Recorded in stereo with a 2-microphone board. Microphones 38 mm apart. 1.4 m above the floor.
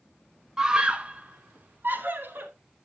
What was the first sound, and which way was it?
A scream, 15° right (ahead or behind).